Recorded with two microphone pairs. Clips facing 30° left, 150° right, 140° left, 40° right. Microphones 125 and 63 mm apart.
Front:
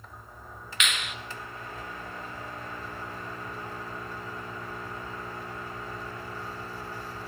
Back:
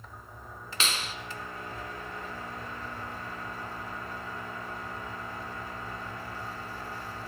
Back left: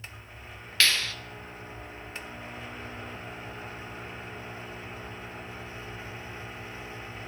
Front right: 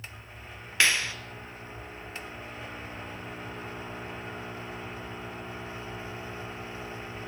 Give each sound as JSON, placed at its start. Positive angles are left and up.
{"t": 0.8, "sound": "a clap", "azimuth_deg": -110, "distance_m": 2.0}